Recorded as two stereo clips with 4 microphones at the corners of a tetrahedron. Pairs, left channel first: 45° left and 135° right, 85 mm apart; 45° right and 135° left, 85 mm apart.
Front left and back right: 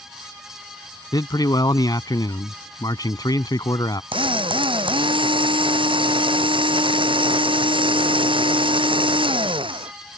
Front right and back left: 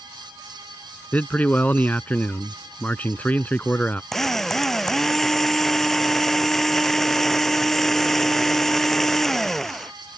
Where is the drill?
130° right.